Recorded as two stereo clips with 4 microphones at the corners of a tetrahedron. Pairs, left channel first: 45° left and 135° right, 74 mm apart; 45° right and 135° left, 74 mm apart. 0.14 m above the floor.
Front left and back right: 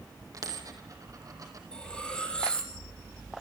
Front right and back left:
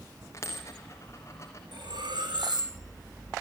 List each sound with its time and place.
0.3 s a dropped coin: 95° right, 3.5 m
1.7 s cutlery clinking: 125° left, 3.5 m